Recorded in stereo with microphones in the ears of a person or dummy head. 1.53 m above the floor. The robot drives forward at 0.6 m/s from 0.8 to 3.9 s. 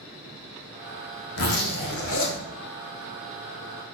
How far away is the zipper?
About 1.5 m.